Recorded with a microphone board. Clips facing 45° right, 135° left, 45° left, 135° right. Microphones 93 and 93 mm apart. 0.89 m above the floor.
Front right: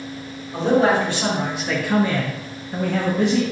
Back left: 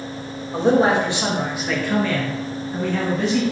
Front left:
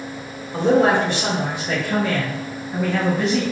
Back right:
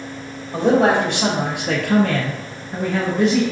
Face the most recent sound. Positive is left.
turn(degrees=-50)